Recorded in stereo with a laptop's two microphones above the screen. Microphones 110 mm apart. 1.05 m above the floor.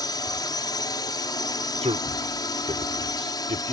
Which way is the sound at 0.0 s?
35° left (ahead or behind).